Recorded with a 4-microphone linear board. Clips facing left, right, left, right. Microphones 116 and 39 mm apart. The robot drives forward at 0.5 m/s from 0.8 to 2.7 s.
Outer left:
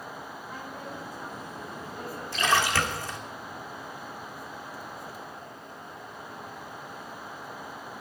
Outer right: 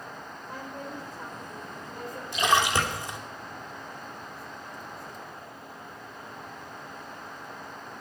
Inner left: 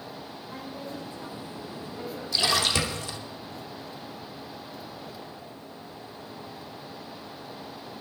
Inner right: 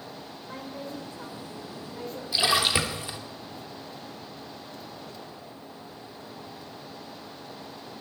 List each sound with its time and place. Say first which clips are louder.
0.5 s a woman speaking: outer right 3 dB, inner right 1 dB; 45° right (ahead or behind), 5.5 m; by 2.2 s 50° right (ahead or behind), 5 m
2.3 s a splash: outer right 2 dB, inner right 1 dB; 15° right (ahead or behind), 2.5 m; by 3.2 s 20° right (ahead or behind), 2 m